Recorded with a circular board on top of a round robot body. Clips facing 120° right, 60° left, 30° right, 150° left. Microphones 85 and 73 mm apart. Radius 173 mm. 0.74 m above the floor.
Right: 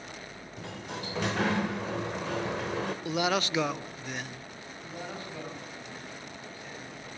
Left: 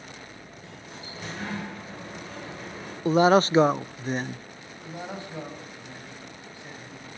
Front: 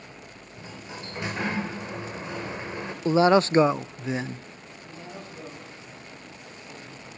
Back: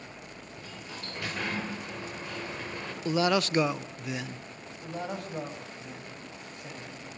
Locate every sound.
0.6 s a sliding door: 100° right, 2 m
3.0 s a man speaking: 20° left, 0.5 m
4.8 s a man speaking: 130° left, 5 m